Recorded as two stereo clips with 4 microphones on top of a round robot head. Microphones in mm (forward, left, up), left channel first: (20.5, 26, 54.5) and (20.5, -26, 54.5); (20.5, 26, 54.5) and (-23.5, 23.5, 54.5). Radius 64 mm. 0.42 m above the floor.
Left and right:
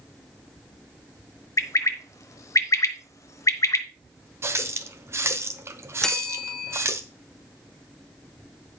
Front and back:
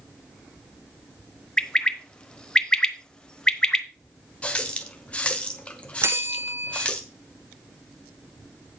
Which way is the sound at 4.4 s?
60° right.